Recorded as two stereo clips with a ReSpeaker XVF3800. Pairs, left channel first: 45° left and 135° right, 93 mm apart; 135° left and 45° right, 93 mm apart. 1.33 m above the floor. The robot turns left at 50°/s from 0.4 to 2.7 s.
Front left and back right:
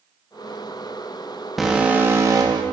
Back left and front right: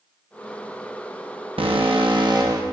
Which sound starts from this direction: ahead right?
An alarm, at 1.6 s.